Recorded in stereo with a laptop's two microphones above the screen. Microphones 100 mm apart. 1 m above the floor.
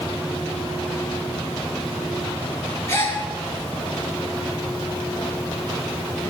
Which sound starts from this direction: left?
A gasp, at 2.9 s.